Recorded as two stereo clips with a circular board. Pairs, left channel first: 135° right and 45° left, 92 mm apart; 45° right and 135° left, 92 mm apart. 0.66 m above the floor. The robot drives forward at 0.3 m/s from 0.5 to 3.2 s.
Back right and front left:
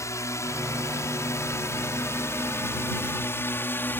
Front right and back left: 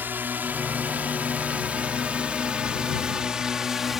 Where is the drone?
165° right; by 4.0 s 145° right.